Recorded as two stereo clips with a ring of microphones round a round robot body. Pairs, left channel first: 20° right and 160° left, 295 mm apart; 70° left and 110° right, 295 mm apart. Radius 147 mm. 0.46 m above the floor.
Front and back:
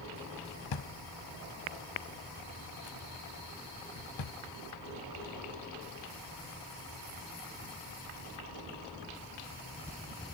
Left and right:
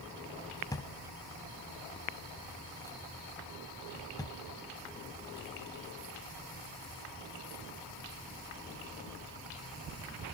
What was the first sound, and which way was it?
A drawer, 10° right.